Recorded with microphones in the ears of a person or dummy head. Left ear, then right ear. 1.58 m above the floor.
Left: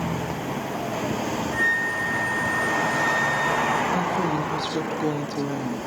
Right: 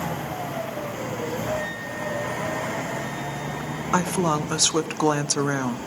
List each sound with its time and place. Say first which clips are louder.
1.5 s a flute: left 7 dB; 55° left (ahead or behind), 6.5 m
3.9 s a woman speaking: right 1 dB; 55° right (ahead or behind), 0.7 m